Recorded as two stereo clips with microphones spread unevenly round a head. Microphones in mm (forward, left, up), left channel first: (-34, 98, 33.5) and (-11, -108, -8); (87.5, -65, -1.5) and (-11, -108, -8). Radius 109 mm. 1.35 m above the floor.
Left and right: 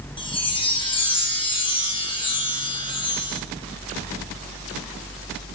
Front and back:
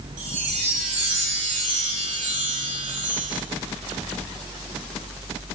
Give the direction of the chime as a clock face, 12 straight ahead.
7 o'clock.